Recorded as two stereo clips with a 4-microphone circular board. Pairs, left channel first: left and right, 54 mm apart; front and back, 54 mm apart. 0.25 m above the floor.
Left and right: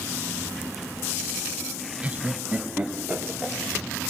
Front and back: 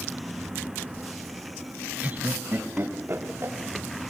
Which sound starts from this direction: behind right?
Laughter, at 2.0 s.